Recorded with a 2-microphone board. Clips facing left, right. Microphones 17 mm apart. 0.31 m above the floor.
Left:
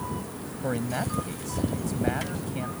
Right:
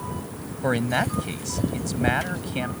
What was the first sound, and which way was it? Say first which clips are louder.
A man speaking: right 6 dB; 45° right (ahead or behind).